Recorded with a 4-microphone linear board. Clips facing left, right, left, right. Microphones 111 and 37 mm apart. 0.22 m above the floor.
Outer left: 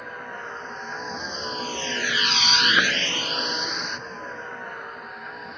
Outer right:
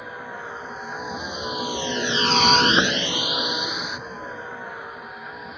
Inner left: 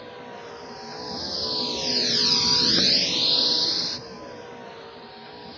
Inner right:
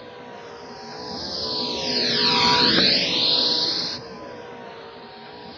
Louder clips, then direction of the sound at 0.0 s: Outer right 1 dB, even; 5° right (ahead or behind).